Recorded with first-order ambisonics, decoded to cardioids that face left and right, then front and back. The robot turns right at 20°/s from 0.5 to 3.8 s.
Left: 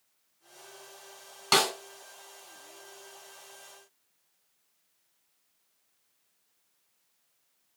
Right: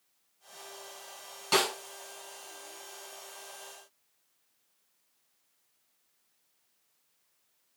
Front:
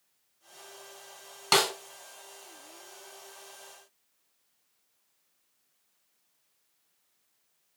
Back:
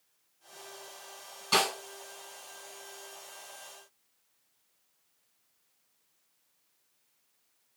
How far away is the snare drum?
About 1.0 m.